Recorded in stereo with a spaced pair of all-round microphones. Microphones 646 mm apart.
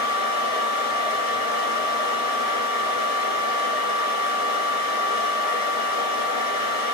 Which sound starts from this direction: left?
A fan, at 0.0 s.